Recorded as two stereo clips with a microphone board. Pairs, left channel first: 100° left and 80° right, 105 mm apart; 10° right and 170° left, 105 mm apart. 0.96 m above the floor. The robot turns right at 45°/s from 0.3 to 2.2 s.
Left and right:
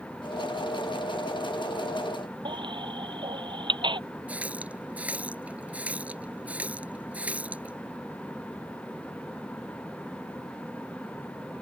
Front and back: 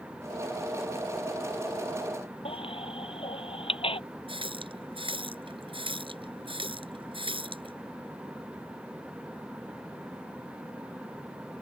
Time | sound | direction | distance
2.5 | a baby crying | 40° right | ?
4.3 | a running tap | 155° right | ?